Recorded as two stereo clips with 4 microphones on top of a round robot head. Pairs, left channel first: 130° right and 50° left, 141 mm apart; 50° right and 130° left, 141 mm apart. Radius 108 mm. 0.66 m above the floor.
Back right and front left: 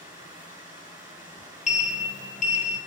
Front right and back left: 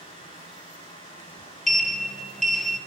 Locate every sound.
0.0 s running water: 10° right, 6 m
1.7 s a sliding door: 140° right, 1.1 m